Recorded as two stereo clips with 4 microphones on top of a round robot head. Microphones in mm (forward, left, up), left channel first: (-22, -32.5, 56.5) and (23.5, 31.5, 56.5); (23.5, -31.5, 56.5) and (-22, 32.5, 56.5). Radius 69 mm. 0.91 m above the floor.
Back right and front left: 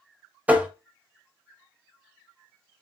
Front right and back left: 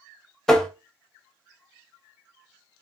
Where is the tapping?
20° left, 0.6 m.